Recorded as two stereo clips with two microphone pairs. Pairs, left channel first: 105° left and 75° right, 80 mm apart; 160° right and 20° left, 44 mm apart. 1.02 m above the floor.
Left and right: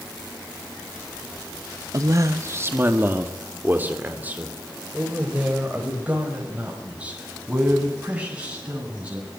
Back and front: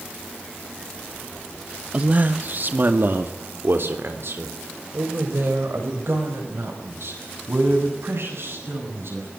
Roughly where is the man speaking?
Ahead right.